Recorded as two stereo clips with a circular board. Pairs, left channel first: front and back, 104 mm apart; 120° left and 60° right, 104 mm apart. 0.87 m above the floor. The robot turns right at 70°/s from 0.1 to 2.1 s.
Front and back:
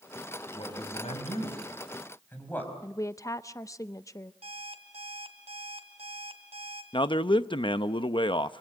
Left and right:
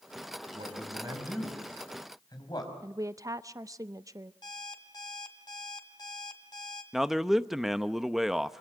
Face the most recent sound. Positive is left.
turn(degrees=25)